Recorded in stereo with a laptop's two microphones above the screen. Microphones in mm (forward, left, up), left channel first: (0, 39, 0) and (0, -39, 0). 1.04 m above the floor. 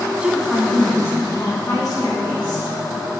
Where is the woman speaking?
15° right (ahead or behind), 1.3 m; by 2.7 s 65° left (ahead or behind), 2.5 m.